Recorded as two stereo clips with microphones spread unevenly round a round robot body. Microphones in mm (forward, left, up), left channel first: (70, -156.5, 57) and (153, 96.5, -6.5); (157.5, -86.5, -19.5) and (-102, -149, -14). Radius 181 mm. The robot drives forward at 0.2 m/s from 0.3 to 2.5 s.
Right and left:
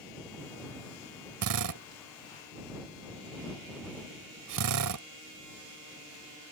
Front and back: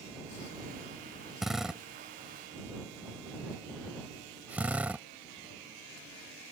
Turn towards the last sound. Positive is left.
turn(degrees=105)